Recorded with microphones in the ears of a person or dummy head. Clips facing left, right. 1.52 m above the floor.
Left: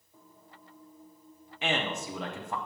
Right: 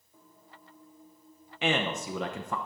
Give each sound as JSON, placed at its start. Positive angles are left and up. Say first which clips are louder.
{"t": 1.6, "sound": "a man speaking", "louder": "right 3 dB", "side_deg": -60, "distance_m": 0.8}